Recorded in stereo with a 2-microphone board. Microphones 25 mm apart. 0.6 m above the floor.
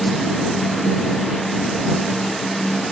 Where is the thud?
No thud in this recording.